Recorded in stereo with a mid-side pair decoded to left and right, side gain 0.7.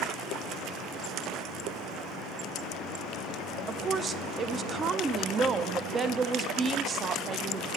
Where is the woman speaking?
30° right, 0.7 m.